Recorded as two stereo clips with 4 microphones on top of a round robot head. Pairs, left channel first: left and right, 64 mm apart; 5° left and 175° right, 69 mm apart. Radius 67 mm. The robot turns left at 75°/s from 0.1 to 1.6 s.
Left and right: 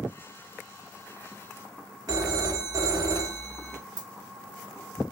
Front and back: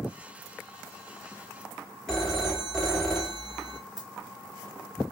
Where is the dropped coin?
80° right, 0.7 m.